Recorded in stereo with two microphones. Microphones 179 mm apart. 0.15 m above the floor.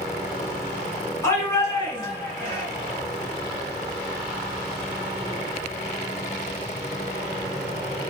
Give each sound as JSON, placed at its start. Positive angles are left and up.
{"t": 1.2, "sound": "a shout", "side_deg": 15, "distance_m": 1.5}